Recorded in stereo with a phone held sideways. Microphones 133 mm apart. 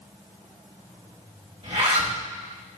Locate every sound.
1.6 s a zipper: 50° right (ahead or behind), 1.9 m